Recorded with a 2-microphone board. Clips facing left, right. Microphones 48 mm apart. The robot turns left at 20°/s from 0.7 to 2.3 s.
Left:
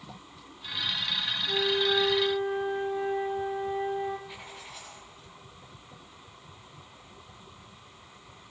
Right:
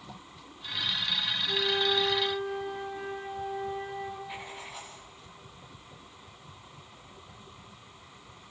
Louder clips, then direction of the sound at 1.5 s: Left 2 dB; 5° left (ahead or behind).